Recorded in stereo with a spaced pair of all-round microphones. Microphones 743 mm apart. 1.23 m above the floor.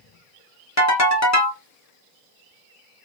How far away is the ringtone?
About 0.8 m.